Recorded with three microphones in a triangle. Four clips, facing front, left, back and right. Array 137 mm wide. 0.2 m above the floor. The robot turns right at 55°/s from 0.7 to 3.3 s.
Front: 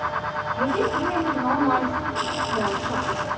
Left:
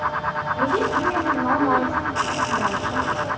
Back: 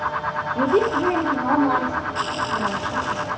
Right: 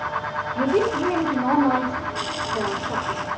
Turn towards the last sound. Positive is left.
turn(degrees=-25)